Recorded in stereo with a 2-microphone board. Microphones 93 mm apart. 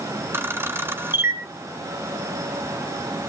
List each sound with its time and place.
0.3 s a camera shutter: 25° right (ahead or behind), 1.3 m